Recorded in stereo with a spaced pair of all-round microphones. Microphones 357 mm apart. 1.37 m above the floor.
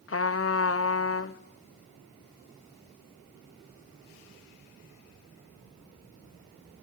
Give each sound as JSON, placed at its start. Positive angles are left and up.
{"t": 0.1, "sound": "a trumpet", "side_deg": 40, "distance_m": 0.6}